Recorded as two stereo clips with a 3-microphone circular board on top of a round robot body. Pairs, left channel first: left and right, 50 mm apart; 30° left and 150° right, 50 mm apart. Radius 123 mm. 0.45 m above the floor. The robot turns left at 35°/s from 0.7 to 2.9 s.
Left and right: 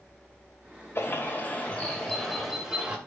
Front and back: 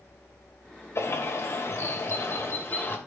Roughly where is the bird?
Ahead left.